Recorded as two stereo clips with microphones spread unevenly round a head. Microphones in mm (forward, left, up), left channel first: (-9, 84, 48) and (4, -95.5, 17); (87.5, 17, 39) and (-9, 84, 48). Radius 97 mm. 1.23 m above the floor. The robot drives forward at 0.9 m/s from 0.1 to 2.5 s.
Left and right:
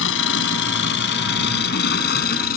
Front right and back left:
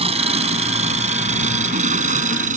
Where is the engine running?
110° left; by 2.6 s 135° left.